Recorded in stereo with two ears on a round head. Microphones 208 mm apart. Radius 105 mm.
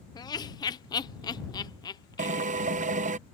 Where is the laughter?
20° left (ahead or behind).